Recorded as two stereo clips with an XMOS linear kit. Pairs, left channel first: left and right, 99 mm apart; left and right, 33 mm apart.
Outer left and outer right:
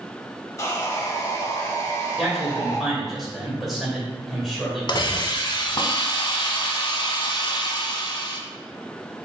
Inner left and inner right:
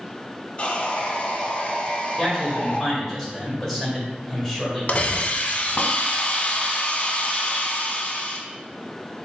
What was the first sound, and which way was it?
Sawing, 30° left (ahead or behind).